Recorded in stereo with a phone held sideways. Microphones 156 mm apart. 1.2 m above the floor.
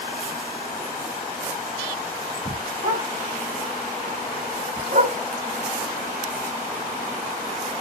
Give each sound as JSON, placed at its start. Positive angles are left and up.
{"t": 2.8, "sound": "a dog barking", "side_deg": -70, "distance_m": 3.5}